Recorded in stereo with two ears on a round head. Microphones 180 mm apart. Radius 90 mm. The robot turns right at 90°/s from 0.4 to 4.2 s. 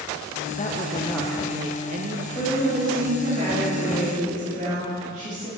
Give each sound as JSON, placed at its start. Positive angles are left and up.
{"t": 0.6, "sound": "a woman speaking", "azimuth_deg": 120, "distance_m": 0.6}
{"t": 2.4, "sound": "a woman speaking", "azimuth_deg": 160, "distance_m": 1.9}